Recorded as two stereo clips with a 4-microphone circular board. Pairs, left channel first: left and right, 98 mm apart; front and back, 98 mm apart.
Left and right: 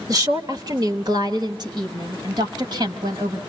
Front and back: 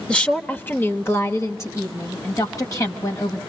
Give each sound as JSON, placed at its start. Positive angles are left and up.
{"t": 0.1, "sound": "a woman speaking", "azimuth_deg": -75, "distance_m": 1.4}